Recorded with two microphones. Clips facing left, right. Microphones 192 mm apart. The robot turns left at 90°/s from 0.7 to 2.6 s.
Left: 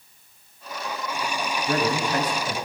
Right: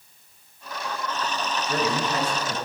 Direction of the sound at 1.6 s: 100° left.